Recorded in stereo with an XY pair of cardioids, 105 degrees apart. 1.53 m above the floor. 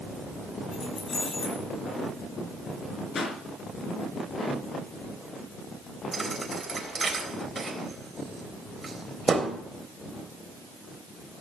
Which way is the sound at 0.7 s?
45° left.